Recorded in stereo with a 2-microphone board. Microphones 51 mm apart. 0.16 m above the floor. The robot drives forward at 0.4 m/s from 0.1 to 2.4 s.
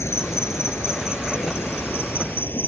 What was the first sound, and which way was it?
An insect, 65° left (ahead or behind).